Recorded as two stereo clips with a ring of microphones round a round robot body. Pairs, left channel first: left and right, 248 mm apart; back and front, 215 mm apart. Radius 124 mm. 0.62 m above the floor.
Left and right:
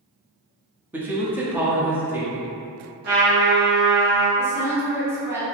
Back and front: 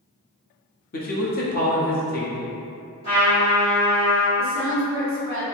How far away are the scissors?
I don't hear scissors.